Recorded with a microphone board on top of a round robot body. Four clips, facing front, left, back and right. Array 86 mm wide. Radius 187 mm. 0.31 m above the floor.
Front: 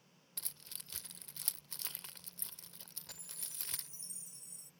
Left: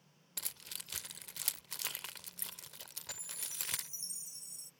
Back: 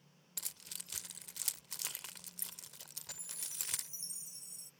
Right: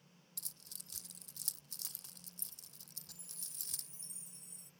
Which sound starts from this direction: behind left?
A chime, at 3.1 s.